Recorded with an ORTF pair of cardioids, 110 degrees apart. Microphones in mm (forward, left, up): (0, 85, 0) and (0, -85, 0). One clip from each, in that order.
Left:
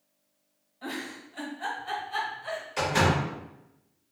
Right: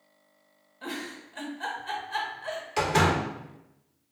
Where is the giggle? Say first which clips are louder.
Even; 35° right, 1.3 m.